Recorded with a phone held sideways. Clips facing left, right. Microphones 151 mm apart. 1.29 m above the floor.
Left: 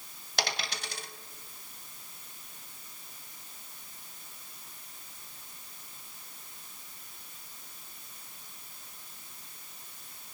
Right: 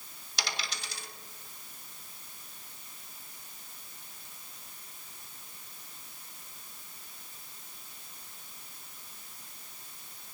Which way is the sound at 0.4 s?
60° left (ahead or behind).